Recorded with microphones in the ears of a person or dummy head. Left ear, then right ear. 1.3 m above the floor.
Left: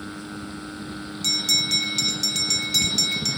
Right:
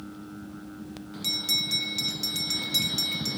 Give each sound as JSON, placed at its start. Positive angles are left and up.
{"t": 1.2, "sound": "a bell", "side_deg": 15}